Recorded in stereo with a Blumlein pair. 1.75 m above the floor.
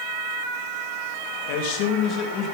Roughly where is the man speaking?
Ahead left.